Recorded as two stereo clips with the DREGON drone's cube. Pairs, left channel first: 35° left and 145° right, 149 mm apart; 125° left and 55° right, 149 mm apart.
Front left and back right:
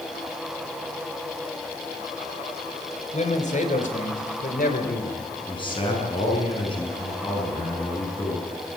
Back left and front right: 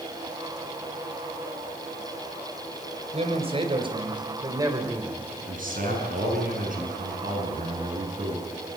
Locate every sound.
3.1 s a man speaking: 5° right, 3.5 m; by 5.3 s 20° left, 3 m
5.5 s a man speaking: 25° right, 7.5 m